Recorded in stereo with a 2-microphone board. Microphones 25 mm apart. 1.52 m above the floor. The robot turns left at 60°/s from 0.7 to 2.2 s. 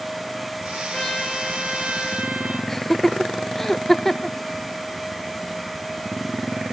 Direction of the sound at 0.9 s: 35° left.